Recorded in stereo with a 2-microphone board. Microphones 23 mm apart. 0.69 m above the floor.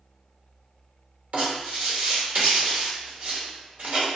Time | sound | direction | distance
1.3 | writing | 80° right | 1.3 m